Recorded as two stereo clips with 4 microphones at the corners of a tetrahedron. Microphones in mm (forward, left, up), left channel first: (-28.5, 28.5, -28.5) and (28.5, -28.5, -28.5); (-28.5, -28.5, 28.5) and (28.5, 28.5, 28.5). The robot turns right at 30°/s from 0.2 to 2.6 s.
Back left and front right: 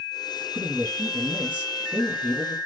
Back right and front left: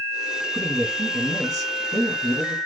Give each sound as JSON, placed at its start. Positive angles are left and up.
{"t": 0.5, "sound": "a man speaking", "azimuth_deg": -10, "distance_m": 1.9}